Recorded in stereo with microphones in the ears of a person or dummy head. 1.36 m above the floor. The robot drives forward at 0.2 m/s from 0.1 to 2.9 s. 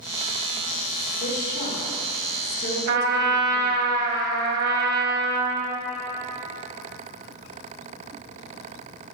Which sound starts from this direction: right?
A trumpet, at 2.9 s.